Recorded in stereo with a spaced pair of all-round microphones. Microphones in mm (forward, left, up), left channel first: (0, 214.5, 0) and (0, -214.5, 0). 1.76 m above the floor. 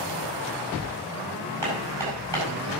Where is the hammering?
75° right (ahead or behind), 7.5 m.